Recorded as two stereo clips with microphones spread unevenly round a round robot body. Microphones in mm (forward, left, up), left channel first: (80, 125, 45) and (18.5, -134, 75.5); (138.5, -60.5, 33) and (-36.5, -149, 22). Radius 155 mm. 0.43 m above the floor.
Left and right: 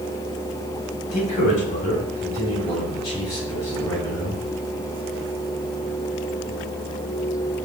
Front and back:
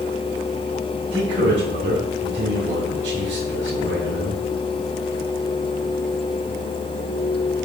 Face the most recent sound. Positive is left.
turn(degrees=160)